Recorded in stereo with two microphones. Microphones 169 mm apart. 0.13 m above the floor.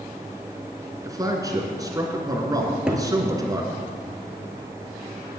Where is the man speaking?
20° right (ahead or behind), 1.6 m.